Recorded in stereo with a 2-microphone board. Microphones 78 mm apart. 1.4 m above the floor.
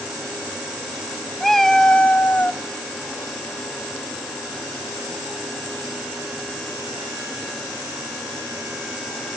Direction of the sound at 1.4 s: Centre (ahead or behind).